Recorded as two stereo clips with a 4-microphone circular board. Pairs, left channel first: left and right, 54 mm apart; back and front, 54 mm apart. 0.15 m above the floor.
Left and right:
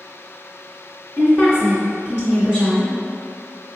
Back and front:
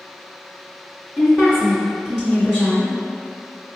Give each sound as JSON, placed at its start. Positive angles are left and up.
{"t": 1.2, "sound": "a woman speaking", "azimuth_deg": -50, "distance_m": 1.7}